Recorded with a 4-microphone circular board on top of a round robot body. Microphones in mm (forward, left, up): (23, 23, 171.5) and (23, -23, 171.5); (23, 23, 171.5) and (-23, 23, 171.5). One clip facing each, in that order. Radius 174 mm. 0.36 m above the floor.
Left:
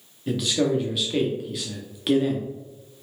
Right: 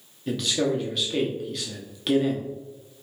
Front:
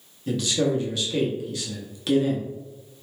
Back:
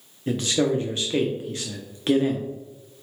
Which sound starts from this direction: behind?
A man speaking, at 0.3 s.